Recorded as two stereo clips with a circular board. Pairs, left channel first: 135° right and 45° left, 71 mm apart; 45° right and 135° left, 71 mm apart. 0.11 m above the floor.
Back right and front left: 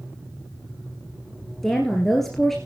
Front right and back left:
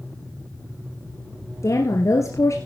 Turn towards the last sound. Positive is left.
turn(degrees=-50)